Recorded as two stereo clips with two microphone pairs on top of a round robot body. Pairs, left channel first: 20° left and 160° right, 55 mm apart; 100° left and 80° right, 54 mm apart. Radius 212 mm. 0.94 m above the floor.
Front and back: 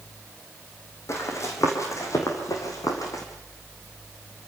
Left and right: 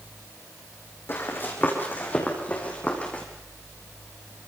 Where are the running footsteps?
55° left, 4 m; by 3.2 s 35° left, 4.5 m.